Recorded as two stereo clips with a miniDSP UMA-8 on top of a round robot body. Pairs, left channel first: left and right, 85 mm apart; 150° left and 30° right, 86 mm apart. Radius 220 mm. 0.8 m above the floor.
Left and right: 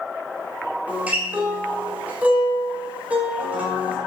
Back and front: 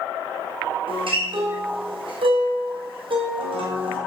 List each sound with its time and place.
0.9 s a guitar: 15° right, 2.5 m